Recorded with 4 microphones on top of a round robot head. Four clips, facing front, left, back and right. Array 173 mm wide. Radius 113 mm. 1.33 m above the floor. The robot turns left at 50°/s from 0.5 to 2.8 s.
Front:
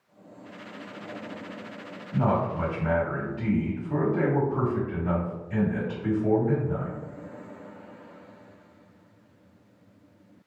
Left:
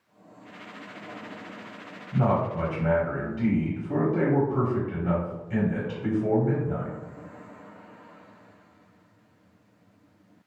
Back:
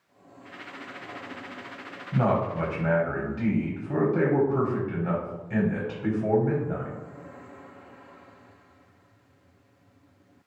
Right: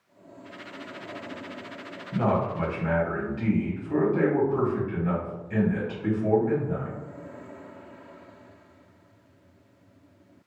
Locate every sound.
2.1 s a man speaking: 175° right, 1.1 m; by 7.0 s 150° left, 1.1 m